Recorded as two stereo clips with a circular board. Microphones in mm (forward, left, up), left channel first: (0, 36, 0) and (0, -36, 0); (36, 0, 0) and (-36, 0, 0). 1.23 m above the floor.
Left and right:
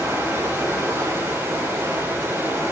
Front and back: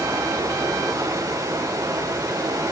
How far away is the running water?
About 6.5 m.